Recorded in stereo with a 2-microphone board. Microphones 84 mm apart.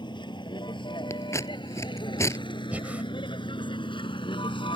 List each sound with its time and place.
0.0 s a vehicle: 65° left (ahead or behind); by 4.8 s 80° left
1.1 s scissors: 35° left (ahead or behind)
2.7 s breathing: 20° right (ahead or behind)